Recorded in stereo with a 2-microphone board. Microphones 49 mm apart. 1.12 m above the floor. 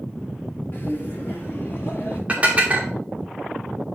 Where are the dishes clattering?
30° right (ahead or behind), 1.7 m.